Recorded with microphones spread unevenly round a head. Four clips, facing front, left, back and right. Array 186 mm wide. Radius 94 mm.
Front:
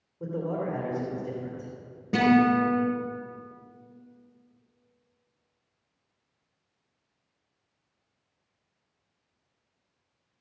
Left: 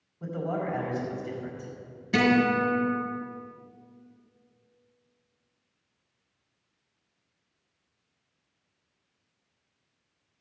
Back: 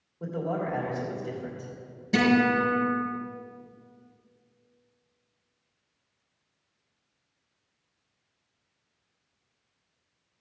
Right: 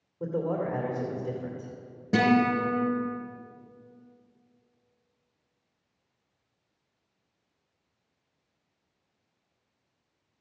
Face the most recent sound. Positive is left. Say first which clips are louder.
# even, front 2 dB
turn(degrees=-65)